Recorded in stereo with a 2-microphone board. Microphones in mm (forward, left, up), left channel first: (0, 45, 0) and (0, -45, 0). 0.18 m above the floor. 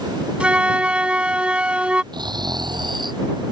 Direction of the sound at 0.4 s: 15° right (ahead or behind).